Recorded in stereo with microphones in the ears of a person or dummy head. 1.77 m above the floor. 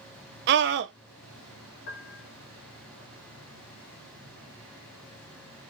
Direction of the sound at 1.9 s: 55° left (ahead or behind).